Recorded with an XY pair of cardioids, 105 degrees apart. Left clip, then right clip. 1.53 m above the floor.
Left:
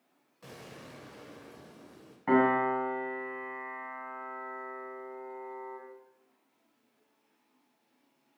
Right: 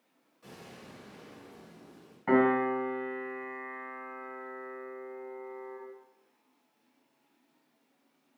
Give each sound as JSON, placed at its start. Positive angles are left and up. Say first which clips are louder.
{"t": 0.4, "sound": "an explosion", "louder": "left 2 dB", "azimuth_deg": 60, "distance_m": 0.6}
{"t": 2.3, "sound": "a piano", "louder": "even", "azimuth_deg": 0, "distance_m": 0.7}